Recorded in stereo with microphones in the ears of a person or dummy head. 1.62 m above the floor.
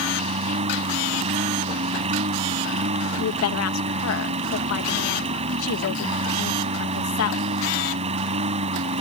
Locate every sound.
0.0 s a lawn mower: 30° right (ahead or behind)
3.2 s a woman speaking: 80° left